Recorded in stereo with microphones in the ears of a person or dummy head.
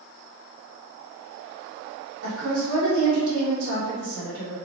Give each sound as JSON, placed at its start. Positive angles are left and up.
{"t": 2.2, "sound": "a woman speaking", "side_deg": -80, "distance_m": 1.5}